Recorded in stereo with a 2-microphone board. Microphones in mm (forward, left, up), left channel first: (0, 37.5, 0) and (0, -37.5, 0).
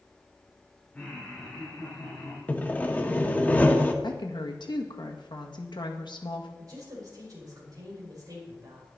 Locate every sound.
0.9 s laughter: 15° left (ahead or behind), 3.5 m; by 2.4 s 25° left (ahead or behind), 4.5 m
2.5 s sawing: 20° left (ahead or behind), 1.3 m
4.0 s a woman speaking: 75° left (ahead or behind), 1.7 m
6.6 s a woman speaking: 50° right (ahead or behind), 5 m